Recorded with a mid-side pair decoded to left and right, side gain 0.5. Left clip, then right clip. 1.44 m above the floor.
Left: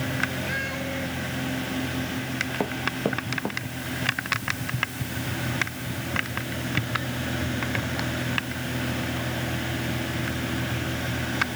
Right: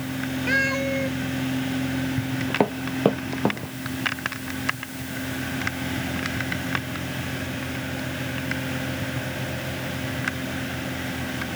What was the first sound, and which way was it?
A cat meowing, 50° right.